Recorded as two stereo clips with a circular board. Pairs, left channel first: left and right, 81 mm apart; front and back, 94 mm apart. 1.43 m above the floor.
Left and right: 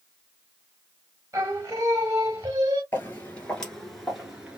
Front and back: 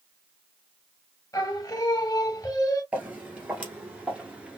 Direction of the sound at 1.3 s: 45° right.